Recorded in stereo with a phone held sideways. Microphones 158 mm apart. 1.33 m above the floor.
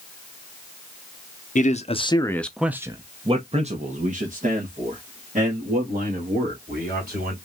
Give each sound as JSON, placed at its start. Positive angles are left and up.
{"t": 1.6, "sound": "a man speaking", "side_deg": 55, "distance_m": 0.7}